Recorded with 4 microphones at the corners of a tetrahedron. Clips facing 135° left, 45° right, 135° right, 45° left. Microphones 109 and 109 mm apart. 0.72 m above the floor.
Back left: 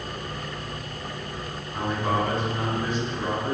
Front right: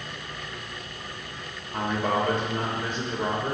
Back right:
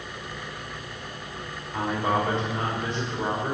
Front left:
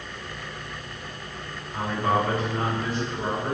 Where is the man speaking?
70° right, 2.5 m.